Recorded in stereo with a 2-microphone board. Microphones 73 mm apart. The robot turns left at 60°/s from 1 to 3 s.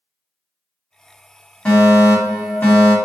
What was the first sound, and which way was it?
A fire alarm, 20° left (ahead or behind).